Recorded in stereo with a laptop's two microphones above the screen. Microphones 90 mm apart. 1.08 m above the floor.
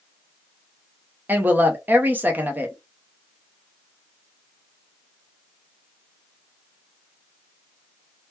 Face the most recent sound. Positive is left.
turn(degrees=-20)  # may be behind; listen again after turning